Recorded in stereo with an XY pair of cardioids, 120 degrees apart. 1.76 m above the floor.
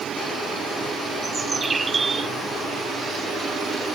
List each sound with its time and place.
1.2 s a bird: 30° right